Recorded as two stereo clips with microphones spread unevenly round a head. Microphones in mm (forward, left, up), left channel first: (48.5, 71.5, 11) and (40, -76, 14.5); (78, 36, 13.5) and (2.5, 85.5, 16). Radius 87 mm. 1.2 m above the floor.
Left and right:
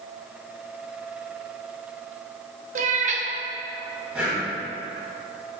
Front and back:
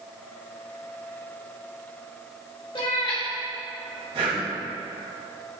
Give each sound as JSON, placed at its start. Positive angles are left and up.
{"t": 2.8, "sound": "a cat meowing", "azimuth_deg": -80, "distance_m": 0.8}
{"t": 4.1, "sound": "breathing", "azimuth_deg": -175, "distance_m": 2.0}